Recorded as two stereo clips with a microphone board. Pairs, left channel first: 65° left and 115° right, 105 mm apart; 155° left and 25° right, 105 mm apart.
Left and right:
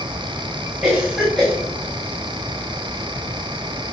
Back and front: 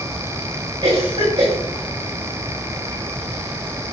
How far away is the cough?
About 3.5 m.